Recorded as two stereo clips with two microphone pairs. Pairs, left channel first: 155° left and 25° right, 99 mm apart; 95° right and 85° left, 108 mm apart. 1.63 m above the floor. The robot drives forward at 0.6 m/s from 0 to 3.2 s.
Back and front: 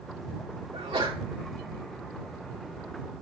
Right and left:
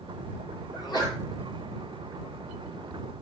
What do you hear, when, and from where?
0.7 s a sneeze: 45° right, 6 m; by 1.2 s 50° right, 6 m